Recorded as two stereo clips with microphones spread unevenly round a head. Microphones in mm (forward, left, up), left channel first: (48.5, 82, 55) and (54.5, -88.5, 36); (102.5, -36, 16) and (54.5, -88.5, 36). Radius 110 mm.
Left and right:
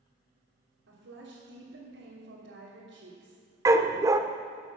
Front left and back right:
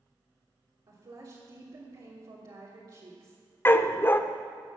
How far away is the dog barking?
About 0.7 m.